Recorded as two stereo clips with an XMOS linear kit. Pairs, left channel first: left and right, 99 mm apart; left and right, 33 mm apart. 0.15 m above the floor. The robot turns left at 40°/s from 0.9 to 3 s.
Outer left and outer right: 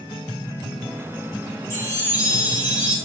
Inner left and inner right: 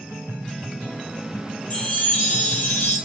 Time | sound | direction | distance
1.7 | a chime | 145° left | 0.9 m